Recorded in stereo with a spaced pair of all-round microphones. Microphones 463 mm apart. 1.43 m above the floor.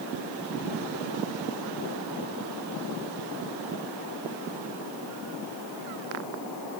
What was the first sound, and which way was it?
Only background noise.